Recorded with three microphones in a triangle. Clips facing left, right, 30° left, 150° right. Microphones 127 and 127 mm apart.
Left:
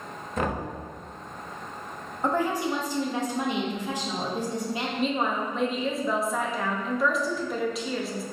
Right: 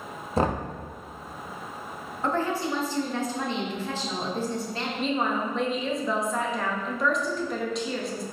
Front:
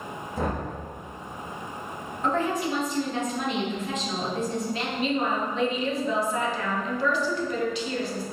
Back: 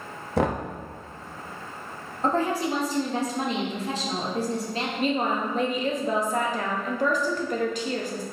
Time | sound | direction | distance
0.4 | knocking | 150° right | 0.5 m
2.2 | a woman speaking | 165° left | 0.9 m
5.0 | a woman speaking | straight behind | 0.8 m